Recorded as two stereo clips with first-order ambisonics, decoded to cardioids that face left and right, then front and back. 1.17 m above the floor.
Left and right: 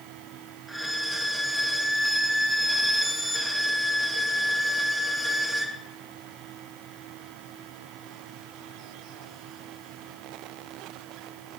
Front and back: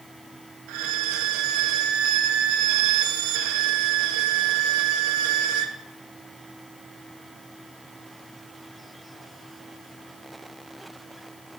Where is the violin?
Straight behind, 1.9 m.